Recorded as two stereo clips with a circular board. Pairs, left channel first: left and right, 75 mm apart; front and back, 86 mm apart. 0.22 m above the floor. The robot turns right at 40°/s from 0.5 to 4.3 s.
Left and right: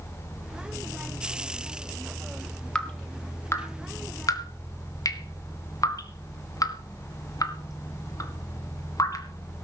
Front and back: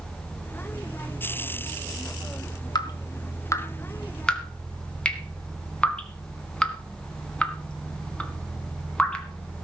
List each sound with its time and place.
2.8 s dripping: 15° left, 2 m; by 9.7 s 75° left, 2 m